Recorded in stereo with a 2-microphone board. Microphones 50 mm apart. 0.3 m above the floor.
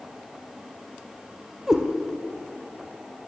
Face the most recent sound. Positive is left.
turn(degrees=-10)  # may be behind; listen again after turning